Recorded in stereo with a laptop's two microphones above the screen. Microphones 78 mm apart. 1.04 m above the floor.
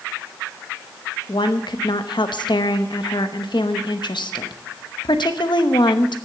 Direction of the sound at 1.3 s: 80° left.